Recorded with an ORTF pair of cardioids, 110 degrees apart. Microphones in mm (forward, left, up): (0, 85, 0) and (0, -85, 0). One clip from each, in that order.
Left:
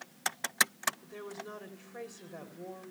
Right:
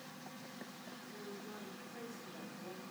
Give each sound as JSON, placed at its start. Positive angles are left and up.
{"t": 1.0, "sound": "a woman speaking", "azimuth_deg": 70, "distance_m": 3.5}